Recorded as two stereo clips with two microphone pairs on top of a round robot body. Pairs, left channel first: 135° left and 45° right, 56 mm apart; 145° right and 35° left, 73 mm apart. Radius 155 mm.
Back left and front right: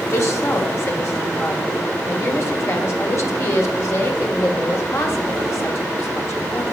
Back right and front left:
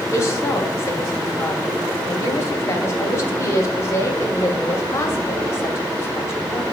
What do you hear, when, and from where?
0.1 s a woman speaking: 165° left, 1.5 m